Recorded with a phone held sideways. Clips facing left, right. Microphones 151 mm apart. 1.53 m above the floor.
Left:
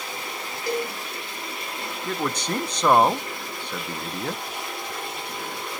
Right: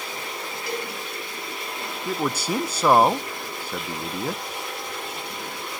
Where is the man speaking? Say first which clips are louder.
Right 2 dB; 5° right (ahead or behind), 0.7 m.